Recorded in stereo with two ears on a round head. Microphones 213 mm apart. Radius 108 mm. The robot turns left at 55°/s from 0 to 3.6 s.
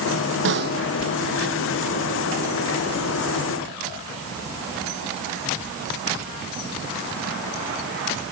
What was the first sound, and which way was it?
A snare drum, 55° right (ahead or behind).